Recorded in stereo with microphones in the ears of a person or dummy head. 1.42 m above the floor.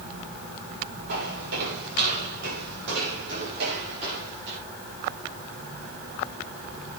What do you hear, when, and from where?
1.1 s footsteps: 55° right (ahead or behind), 7.5 m; by 4.6 s 65° right (ahead or behind), 8.5 m